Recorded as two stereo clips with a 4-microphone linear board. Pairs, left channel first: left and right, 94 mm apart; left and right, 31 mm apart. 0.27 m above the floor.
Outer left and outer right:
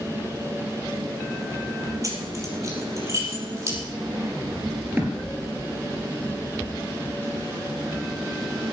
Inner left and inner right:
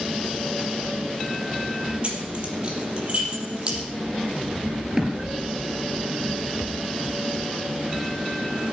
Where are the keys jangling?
35° right (ahead or behind), 4.5 m; by 3.8 s 30° right (ahead or behind), 5.5 m.